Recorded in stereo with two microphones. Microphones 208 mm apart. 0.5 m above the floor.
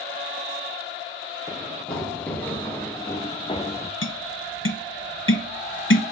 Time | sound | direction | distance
1.5 | running footsteps | centre (ahead or behind) | 2.5 m
4.0 | tapping | 70° left (ahead or behind) | 1.0 m